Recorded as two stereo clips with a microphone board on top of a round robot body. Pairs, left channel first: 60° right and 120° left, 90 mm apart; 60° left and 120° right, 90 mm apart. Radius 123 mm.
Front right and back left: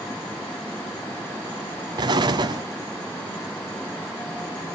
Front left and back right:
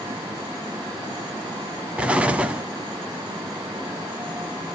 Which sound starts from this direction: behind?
An explosion, at 2.0 s.